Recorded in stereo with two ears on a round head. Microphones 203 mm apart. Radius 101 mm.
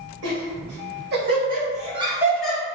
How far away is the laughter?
About 1.7 m.